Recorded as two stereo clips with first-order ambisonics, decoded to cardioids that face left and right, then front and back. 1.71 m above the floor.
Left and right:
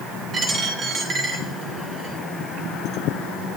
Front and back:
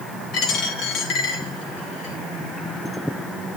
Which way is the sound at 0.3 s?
30° right.